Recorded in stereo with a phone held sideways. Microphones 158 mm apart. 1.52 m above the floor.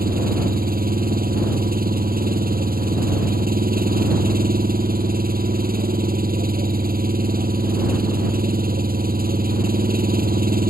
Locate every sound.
0.0 s an engine running: 75° right (ahead or behind)